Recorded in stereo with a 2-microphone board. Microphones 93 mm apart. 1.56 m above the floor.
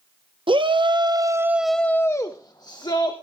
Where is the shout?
60° right (ahead or behind), 1.0 m; by 3.1 s 50° left (ahead or behind), 1.4 m.